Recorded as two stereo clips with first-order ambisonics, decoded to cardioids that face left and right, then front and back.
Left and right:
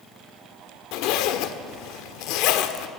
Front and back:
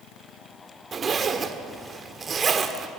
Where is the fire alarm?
No fire alarm in this recording.